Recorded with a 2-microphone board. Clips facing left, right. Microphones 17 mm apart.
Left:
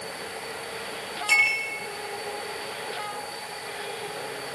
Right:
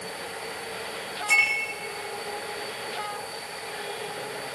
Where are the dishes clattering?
40° left (ahead or behind), 9.5 m.